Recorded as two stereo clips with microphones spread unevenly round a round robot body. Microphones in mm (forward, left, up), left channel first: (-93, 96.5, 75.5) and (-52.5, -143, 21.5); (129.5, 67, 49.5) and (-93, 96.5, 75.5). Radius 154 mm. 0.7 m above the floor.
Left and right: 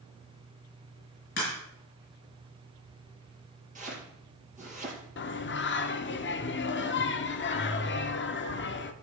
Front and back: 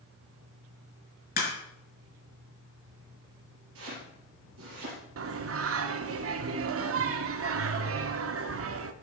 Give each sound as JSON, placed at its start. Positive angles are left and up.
{"t": 1.4, "sound": "a crack", "azimuth_deg": 40, "distance_m": 5.0}
{"t": 3.8, "sound": "chopping", "azimuth_deg": -140, "distance_m": 4.5}
{"t": 5.2, "sound": "singing", "azimuth_deg": 145, "distance_m": 0.8}